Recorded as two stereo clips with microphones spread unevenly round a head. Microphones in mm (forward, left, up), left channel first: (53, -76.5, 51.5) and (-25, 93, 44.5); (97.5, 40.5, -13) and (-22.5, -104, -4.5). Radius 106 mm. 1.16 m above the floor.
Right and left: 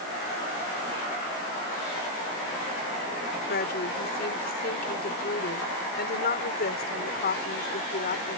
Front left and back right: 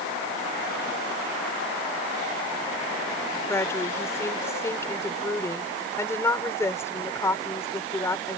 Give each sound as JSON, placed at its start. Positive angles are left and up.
{"t": 3.5, "sound": "a woman speaking", "azimuth_deg": -25}